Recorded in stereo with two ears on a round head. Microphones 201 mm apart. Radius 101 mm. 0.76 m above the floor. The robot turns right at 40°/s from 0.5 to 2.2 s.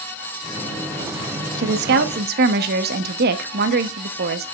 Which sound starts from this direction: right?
A woman speaking, at 1.6 s.